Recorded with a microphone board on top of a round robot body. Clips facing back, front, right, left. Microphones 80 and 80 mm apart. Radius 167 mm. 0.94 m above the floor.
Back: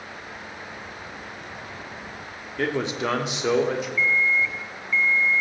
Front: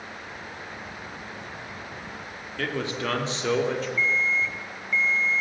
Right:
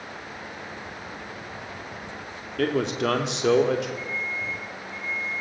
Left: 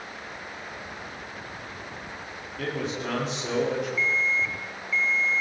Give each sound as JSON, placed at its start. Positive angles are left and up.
{"t": 2.6, "sound": "a man speaking", "azimuth_deg": -110, "distance_m": 3.0}
{"t": 4.0, "sound": "an alarm clock", "azimuth_deg": 70, "distance_m": 2.5}